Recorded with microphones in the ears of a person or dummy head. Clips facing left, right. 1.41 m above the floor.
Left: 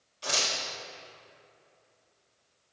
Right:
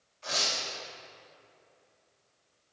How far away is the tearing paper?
About 1.4 m.